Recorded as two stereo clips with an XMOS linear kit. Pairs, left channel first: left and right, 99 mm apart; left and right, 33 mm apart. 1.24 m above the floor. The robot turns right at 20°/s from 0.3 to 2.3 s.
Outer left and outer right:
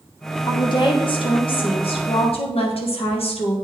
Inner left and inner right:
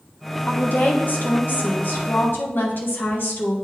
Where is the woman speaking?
50° left, 1.3 m; by 3.5 s 85° left, 1.3 m.